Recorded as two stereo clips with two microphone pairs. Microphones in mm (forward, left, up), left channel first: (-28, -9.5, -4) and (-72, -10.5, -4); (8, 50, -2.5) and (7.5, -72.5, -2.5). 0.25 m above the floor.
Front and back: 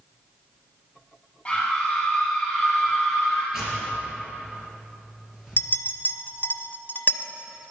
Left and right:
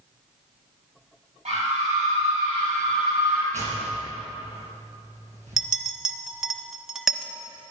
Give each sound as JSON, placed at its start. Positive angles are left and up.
{"t": 1.4, "sound": "a scream", "azimuth_deg": -70, "distance_m": 5.5}
{"t": 3.5, "sound": "tearing paper", "azimuth_deg": -100, "distance_m": 4.0}
{"t": 5.6, "sound": "a clink", "azimuth_deg": -5, "distance_m": 0.9}